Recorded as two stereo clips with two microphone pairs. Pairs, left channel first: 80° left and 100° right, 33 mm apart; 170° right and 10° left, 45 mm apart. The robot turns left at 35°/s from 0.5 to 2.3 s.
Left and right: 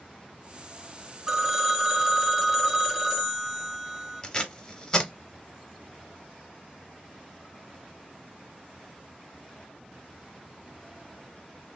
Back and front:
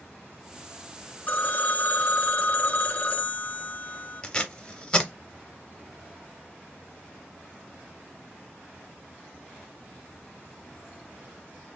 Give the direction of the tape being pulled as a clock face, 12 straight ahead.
8 o'clock.